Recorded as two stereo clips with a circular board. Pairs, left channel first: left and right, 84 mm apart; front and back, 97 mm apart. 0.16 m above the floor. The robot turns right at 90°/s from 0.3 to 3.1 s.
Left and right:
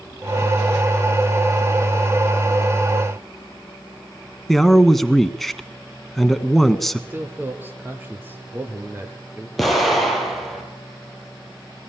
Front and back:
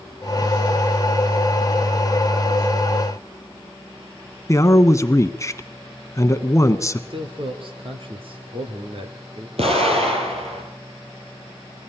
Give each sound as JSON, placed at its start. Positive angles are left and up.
{"t": 4.5, "sound": "a man speaking", "azimuth_deg": 5, "distance_m": 1.2}
{"t": 7.1, "sound": "a man speaking", "azimuth_deg": -155, "distance_m": 3.0}
{"t": 9.6, "sound": "an explosion", "azimuth_deg": 180, "distance_m": 5.0}